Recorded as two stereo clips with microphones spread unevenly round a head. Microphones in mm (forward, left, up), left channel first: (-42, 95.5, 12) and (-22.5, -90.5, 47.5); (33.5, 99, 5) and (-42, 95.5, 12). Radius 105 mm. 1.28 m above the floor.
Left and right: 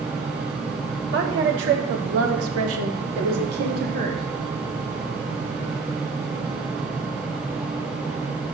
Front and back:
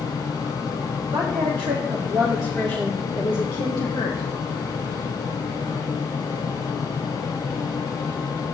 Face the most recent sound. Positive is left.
turn(degrees=-20)